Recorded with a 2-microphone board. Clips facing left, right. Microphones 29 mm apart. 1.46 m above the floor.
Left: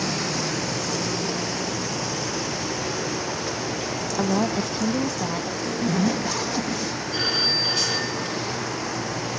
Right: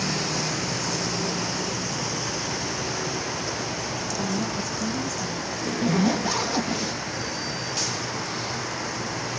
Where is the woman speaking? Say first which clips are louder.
Left 7 dB; 55° left (ahead or behind); by 5.5 s 70° left (ahead or behind).